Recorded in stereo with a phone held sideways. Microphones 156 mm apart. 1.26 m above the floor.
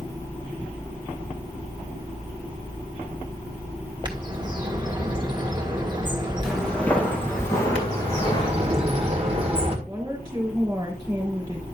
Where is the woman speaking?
25° right (ahead or behind), 4 m.